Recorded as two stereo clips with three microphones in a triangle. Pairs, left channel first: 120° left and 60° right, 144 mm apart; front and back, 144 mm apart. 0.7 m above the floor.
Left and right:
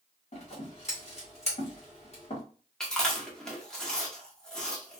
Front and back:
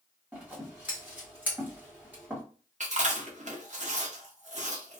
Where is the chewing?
155° right, 0.8 m.